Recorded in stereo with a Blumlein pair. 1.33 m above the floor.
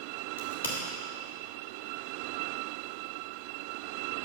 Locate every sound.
0.4 s a crack: 65° left, 2.5 m